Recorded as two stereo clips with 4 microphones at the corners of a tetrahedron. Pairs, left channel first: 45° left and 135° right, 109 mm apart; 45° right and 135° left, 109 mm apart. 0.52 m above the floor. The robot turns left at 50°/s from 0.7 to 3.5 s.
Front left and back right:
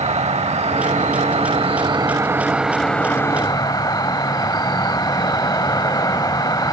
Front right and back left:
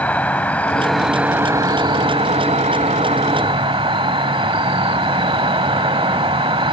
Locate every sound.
0.0 s an insect: 120° right, 0.7 m; by 6.7 s 100° left, 0.7 m